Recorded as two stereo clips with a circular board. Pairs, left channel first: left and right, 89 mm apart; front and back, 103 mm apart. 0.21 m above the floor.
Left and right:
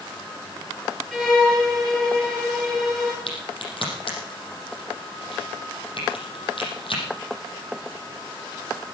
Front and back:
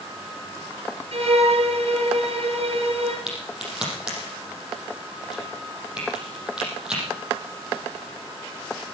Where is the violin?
175° left, 4 m.